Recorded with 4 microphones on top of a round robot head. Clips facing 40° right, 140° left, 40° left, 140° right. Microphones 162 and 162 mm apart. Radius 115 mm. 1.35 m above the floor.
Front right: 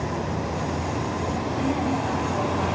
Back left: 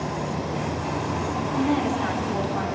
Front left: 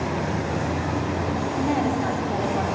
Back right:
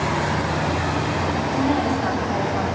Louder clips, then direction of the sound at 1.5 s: Back left 3 dB, back right 2 dB; 125° left.